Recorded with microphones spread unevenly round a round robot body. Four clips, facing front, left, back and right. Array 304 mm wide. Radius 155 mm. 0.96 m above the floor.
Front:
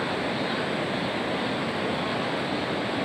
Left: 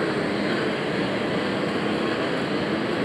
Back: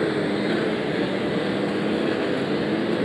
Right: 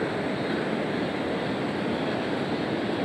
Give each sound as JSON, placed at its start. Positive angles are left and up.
{"t": 0.0, "sound": "a lawn mower", "azimuth_deg": 160}